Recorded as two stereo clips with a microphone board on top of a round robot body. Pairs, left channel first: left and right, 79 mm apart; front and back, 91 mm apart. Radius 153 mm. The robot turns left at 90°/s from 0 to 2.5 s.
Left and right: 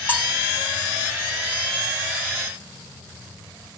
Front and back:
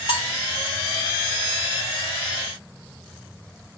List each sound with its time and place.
0.1 s cutlery clinking: 20° left, 1.0 m; by 0.3 s straight ahead, 1.0 m